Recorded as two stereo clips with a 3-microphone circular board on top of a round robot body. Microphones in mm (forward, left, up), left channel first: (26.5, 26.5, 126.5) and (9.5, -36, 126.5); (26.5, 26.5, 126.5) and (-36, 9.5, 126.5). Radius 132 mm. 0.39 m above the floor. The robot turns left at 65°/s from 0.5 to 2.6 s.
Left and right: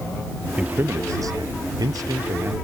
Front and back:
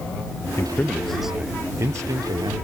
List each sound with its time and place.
0.6 s a man speaking: 35° right; by 2.5 s 165° right